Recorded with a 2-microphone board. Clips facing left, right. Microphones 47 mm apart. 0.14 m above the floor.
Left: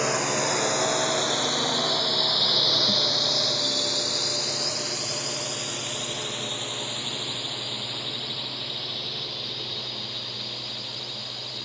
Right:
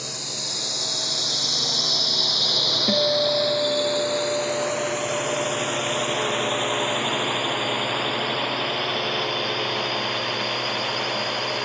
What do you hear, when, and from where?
0.0 s a drone: 50° left (ahead or behind); by 11.7 s 60° right (ahead or behind)
2.9 s a guitar: 55° right (ahead or behind)